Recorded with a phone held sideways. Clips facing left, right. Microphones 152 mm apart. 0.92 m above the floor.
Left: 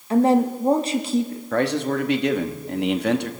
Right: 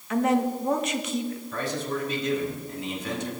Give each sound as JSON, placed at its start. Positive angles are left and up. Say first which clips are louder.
{"t": 0.1, "sound": "a woman speaking", "louder": "left 6 dB", "side_deg": 30, "distance_m": 1.5}
{"t": 1.5, "sound": "a man speaking", "louder": "left 11 dB", "side_deg": 70, "distance_m": 1.2}